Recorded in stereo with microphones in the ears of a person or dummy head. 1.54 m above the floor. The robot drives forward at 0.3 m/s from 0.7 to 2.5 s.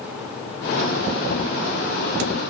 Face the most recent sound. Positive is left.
No sound to turn to.